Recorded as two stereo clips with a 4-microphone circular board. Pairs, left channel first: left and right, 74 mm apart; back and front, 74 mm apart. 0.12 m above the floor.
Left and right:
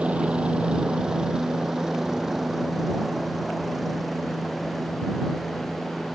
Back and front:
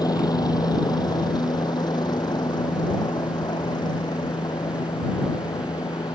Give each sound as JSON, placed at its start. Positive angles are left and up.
{"t": 0.0, "sound": "a helicopter", "azimuth_deg": -165}